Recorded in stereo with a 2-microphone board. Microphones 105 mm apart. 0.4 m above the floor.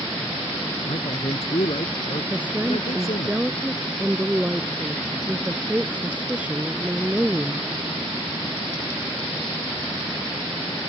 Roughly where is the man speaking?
Left.